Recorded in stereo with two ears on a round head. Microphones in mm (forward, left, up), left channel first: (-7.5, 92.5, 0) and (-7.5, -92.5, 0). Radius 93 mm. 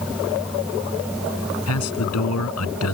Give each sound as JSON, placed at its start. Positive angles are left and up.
{"t": 1.7, "sound": "a man speaking", "side_deg": 85}